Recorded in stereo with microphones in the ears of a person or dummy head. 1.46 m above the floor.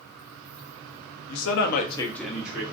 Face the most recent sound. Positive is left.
turn(degrees=-10)  # may be behind; listen again after turning